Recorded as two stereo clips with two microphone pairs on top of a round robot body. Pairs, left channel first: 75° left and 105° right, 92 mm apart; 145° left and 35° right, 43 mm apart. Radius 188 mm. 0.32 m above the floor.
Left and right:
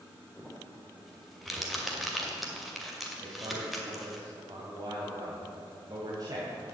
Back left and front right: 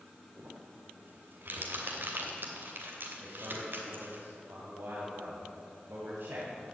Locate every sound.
0.4 s crumpling: 15° right, 2.5 m
3.2 s a man speaking: 65° right, 2.5 m